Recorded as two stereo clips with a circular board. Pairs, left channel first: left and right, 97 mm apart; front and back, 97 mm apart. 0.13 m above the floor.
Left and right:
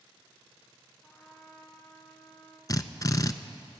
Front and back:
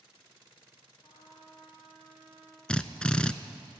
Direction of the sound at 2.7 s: 75° left.